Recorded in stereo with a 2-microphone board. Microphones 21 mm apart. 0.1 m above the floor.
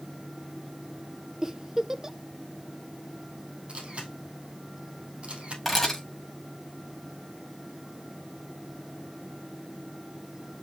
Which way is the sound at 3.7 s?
60° right (ahead or behind).